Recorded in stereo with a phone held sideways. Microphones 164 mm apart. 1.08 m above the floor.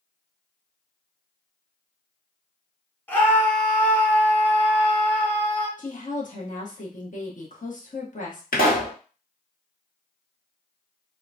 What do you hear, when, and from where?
3.1 s a scream: 10° left (ahead or behind), 1.1 m
5.8 s a woman speaking: 55° left (ahead or behind), 1.1 m
8.5 s a pop: 70° left (ahead or behind), 1.1 m